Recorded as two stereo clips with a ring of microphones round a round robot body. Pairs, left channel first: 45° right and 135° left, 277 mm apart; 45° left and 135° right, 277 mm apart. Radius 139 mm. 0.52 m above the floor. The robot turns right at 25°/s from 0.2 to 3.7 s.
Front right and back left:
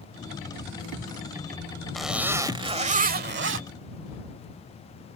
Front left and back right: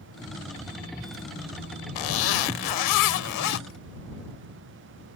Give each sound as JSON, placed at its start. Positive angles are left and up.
{"t": 1.9, "sound": "a zipper", "azimuth_deg": 45}